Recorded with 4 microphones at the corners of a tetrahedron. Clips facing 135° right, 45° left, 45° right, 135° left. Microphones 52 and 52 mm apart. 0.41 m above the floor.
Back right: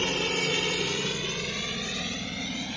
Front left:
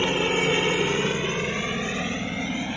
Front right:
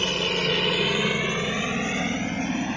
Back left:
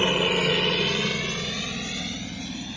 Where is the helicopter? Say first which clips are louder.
Front left 5 dB, back left 3 dB; 90° left; by 2.8 s 15° right.